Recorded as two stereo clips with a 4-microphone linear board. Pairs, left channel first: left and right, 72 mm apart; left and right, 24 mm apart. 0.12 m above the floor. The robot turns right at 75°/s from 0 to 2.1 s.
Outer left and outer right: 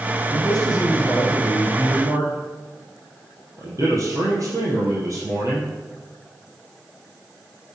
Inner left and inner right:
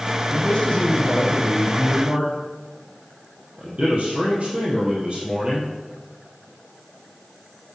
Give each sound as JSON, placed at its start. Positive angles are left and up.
{"t": 0.3, "sound": "a man speaking", "azimuth_deg": 95, "distance_m": 3.0}